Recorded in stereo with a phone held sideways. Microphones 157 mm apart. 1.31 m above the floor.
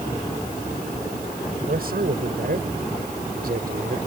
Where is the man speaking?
75° right (ahead or behind); by 4.0 s 70° right (ahead or behind).